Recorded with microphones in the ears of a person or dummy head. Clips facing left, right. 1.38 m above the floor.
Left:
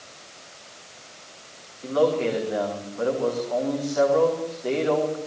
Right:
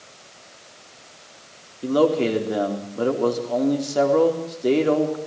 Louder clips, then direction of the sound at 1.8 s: Right 3 dB; 50° right (ahead or behind).